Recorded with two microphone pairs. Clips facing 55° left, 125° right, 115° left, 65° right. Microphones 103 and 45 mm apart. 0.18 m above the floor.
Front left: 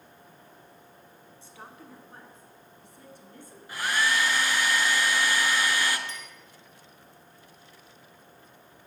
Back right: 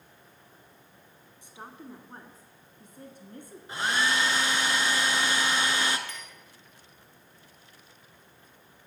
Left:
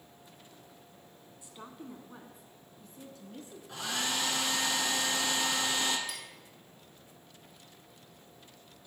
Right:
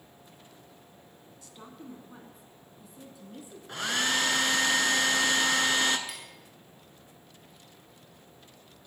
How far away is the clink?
About 2 m.